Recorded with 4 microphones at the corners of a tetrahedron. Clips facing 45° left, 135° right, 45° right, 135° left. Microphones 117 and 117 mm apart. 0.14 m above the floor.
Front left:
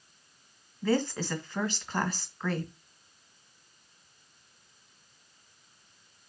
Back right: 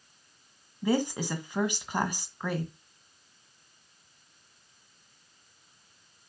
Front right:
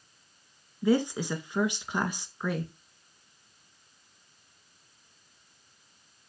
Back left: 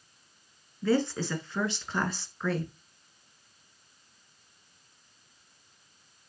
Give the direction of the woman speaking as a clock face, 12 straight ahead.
3 o'clock.